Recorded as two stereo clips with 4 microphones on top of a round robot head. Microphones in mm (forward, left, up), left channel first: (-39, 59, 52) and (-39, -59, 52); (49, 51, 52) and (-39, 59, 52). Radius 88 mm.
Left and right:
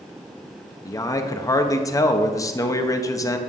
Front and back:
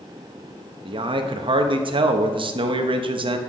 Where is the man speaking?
155° left, 1.0 m.